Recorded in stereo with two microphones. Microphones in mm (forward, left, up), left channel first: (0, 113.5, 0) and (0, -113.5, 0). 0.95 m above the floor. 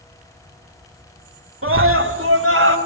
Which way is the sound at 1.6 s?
65° right (ahead or behind).